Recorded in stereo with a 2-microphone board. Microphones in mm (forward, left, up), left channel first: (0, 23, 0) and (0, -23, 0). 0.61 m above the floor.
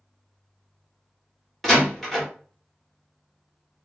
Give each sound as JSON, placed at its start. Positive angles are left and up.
{"t": 1.6, "sound": "a door slam", "side_deg": 0, "distance_m": 1.1}